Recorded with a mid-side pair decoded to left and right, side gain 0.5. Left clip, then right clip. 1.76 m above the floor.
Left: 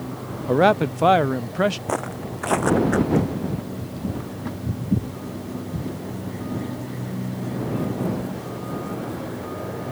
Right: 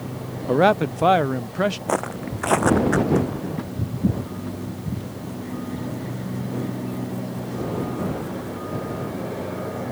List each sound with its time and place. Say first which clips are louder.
0.5 s a man speaking: even; straight ahead; by 1.8 s 10° left
1.9 s footsteps: right 2 dB; 15° right